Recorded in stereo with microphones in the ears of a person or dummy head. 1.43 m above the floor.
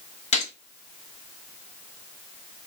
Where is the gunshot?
35° left (ahead or behind), 0.5 m.